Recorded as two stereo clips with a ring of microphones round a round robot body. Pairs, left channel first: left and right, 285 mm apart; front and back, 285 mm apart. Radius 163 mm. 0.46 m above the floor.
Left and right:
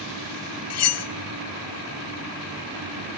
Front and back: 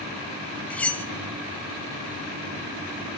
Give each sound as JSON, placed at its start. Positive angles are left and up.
{"t": 0.7, "sound": "cutlery clinking", "azimuth_deg": 85, "distance_m": 0.8}